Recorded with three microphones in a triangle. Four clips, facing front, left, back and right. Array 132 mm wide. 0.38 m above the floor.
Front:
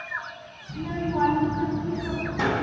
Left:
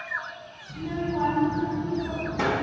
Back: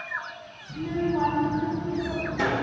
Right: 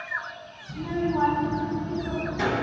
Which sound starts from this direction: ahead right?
A child speaking, at 0.7 s.